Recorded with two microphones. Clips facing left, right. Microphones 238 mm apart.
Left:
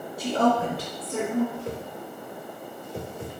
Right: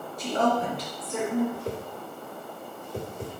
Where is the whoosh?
40° right (ahead or behind), 1.3 m.